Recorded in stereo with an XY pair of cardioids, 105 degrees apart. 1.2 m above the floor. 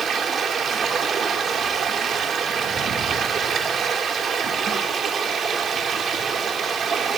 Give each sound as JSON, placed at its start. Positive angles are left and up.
{"t": 0.0, "sound": "running water", "azimuth_deg": -55, "distance_m": 1.6}